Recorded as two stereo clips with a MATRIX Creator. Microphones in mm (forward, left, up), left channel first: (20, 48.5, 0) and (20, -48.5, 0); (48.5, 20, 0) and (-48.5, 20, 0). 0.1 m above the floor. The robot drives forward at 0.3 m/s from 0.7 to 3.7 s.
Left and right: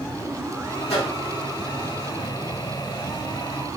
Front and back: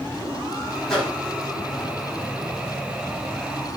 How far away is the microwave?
About 5 m.